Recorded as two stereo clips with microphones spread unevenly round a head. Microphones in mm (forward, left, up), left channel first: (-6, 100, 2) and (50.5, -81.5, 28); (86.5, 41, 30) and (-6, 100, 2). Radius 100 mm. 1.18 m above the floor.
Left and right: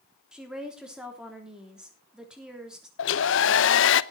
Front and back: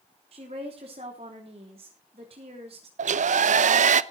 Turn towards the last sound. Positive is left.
turn(degrees=140)